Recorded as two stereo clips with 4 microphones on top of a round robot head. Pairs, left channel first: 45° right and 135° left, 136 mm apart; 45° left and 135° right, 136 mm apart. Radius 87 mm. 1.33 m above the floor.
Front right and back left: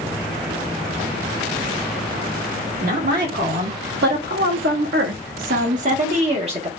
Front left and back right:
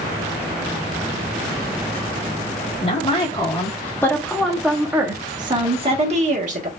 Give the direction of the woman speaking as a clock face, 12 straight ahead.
9 o'clock.